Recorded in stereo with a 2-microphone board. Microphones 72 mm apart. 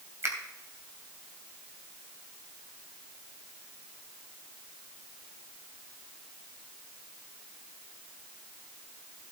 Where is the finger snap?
40° right (ahead or behind), 2.5 m.